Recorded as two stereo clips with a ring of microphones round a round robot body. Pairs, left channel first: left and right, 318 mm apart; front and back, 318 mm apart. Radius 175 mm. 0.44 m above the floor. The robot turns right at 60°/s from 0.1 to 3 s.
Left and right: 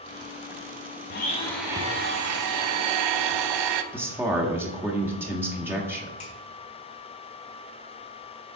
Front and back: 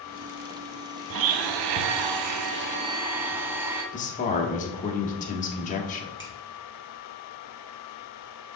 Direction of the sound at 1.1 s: 150° left.